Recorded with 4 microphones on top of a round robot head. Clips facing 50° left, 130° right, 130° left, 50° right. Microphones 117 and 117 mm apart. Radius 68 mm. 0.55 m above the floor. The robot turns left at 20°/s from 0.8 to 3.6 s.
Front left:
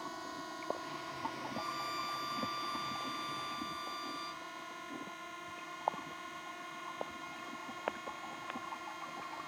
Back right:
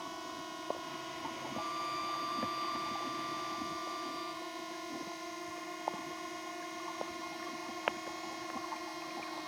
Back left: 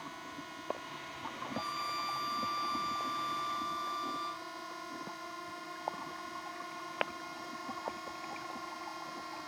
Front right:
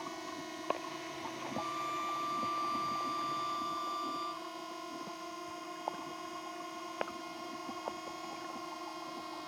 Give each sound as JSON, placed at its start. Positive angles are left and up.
{"t": 0.0, "sound": "a drone", "azimuth_deg": -55}
{"t": 1.5, "sound": "a violin", "azimuth_deg": 90}